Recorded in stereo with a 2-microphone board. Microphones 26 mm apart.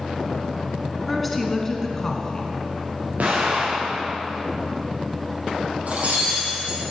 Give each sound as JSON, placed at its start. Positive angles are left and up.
{"t": 1.1, "sound": "a woman speaking", "side_deg": 0, "distance_m": 1.5}
{"t": 3.2, "sound": "an explosion", "side_deg": -80, "distance_m": 3.5}
{"t": 5.9, "sound": "breaking glass", "side_deg": -70, "distance_m": 4.0}